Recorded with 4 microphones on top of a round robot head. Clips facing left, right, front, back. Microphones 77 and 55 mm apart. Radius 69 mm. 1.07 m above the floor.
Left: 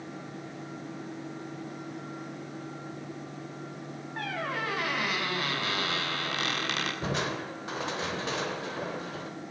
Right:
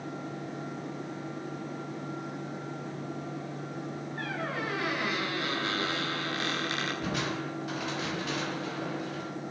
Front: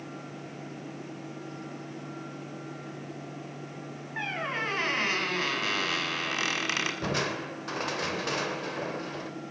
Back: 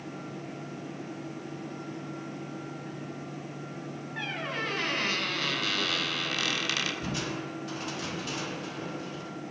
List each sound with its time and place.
4.2 s a squeak: 55° left, 6 m
7.0 s crushing: 30° left, 3 m